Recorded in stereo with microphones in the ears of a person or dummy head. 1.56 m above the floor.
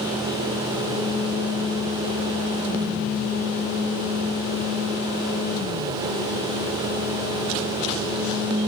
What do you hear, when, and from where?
Only background noise.